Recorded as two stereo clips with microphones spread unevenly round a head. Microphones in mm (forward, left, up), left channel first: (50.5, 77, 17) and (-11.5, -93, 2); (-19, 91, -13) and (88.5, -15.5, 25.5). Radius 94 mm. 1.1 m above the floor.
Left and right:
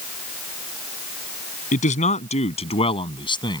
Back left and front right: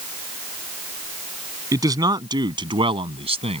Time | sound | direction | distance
1.7 | a man speaking | 20° left | ?